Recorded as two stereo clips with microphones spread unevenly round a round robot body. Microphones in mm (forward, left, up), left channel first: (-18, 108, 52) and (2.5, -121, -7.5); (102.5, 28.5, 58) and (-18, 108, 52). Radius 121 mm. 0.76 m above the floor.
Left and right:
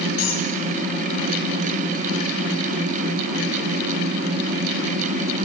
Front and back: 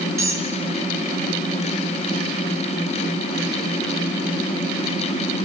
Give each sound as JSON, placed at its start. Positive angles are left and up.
{"t": 0.2, "sound": "a squeak", "azimuth_deg": 75, "distance_m": 3.0}